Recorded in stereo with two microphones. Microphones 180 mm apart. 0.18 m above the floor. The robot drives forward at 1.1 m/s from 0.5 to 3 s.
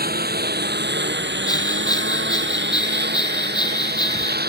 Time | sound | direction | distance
0.0 | a lawn mower | 55° right (ahead or behind) | ?
1.5 | a bell | 20° left (ahead or behind) | ?